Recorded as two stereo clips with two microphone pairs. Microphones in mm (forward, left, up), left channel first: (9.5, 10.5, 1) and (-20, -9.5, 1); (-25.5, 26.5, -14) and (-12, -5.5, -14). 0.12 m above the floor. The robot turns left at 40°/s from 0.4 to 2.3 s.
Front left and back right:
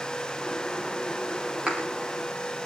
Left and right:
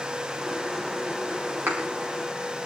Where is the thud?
65° right, 6 m; by 1.8 s 75° right, 6 m.